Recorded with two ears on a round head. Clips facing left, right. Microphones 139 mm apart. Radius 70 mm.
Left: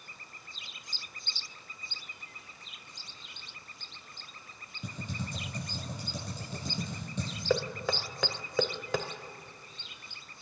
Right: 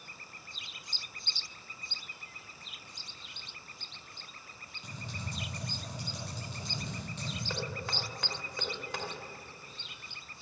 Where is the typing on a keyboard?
90° left, 9.5 m.